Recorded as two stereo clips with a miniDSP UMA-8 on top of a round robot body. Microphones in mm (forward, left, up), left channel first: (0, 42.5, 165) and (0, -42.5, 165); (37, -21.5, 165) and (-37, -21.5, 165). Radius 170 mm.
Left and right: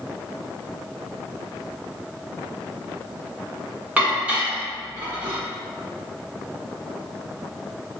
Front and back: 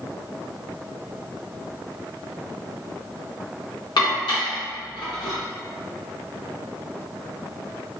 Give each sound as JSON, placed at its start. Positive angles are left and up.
{"t": 4.0, "sound": "dishes clattering", "azimuth_deg": -15, "distance_m": 1.2}